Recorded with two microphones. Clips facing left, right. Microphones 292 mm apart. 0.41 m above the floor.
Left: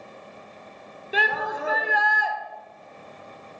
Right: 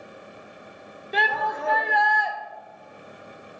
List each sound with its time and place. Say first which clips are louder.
1.1 s a shout: even; 5° left (ahead or behind), 0.8 m